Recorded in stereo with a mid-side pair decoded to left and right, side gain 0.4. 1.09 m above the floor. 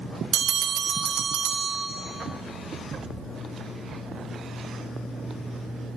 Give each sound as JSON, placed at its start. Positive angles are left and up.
{"t": 0.3, "sound": "a bell", "azimuth_deg": -70, "distance_m": 1.5}